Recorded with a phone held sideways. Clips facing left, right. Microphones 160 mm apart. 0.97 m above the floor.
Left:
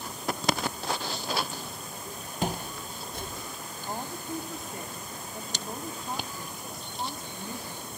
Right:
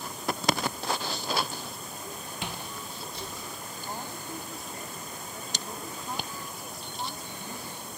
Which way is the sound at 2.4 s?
40° left (ahead or behind).